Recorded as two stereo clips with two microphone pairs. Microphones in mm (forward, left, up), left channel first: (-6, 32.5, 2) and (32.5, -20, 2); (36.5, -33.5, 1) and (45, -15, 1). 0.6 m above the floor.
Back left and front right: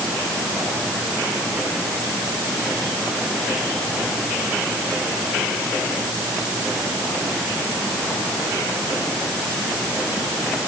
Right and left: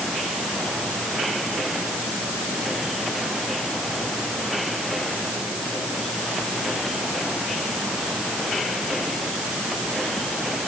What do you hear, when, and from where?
Only background noise.